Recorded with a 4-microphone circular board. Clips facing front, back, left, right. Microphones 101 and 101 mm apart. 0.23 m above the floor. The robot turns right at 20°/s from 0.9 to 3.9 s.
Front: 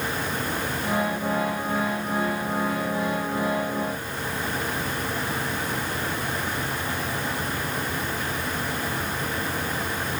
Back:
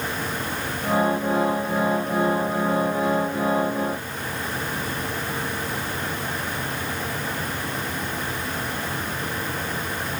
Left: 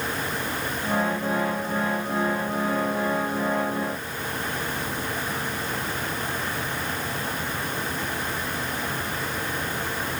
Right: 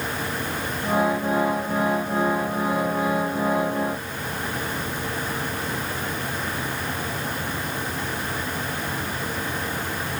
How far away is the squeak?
No squeak in this recording.